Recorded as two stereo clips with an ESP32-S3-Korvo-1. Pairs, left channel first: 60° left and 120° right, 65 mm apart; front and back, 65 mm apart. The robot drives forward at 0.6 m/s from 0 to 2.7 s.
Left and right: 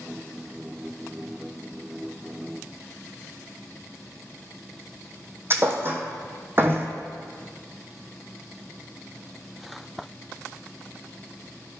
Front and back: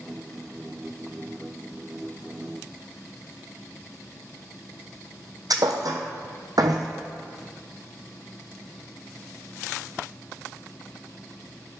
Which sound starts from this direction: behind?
A thud, at 5.5 s.